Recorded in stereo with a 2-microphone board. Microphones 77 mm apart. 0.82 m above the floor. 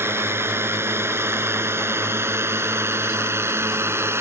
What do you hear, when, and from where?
0.0 s a drone: 35° right (ahead or behind)